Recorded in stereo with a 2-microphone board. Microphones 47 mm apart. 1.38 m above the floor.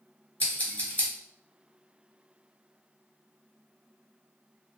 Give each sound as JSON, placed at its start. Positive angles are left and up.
{"t": 0.4, "sound": "scissors", "side_deg": 40, "distance_m": 0.9}